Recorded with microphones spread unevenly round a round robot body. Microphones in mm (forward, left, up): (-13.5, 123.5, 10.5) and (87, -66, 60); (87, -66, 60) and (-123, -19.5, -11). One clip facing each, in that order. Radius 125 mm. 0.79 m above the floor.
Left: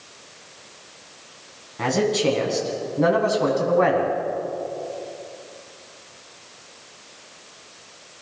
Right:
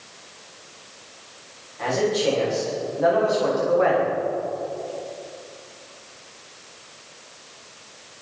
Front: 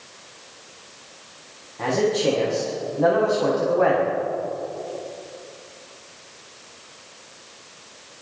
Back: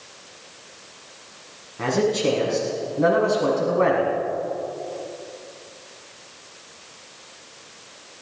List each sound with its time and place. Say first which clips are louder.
1.8 s a man speaking: left 1 dB, even; 95° left, 7.5 m